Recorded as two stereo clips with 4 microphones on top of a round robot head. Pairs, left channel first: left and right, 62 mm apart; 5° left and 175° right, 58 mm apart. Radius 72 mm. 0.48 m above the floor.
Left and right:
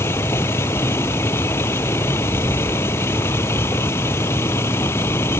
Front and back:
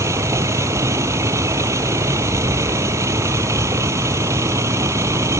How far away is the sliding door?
No sliding door in this recording.